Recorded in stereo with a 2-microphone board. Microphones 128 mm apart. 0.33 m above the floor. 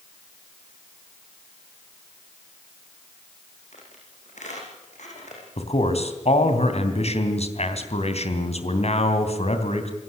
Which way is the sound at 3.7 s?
75° left (ahead or behind).